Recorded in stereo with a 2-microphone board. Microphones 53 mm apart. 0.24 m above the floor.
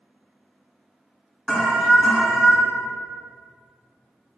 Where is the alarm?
Centre (ahead or behind), 1.5 m.